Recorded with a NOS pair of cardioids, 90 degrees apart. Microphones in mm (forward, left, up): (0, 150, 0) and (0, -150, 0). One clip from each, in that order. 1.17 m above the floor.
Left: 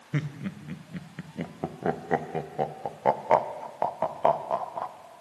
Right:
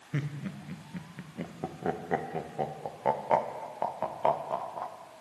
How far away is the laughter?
About 0.5 m.